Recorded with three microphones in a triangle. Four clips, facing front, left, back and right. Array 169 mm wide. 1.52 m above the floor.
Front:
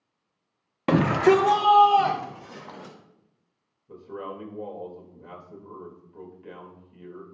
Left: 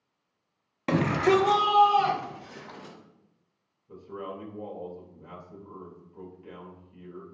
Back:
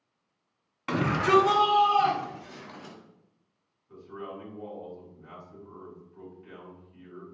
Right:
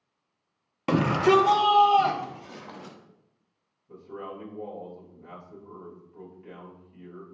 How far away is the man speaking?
About 2.5 m.